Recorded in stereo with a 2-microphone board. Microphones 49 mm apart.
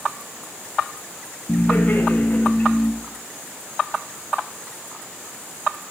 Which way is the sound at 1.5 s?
30° left (ahead or behind).